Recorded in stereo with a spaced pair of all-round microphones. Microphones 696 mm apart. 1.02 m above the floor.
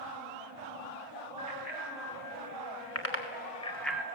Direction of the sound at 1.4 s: 35° left (ahead or behind).